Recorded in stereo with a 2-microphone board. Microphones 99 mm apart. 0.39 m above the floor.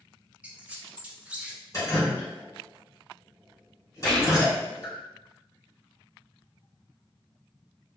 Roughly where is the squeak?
Centre.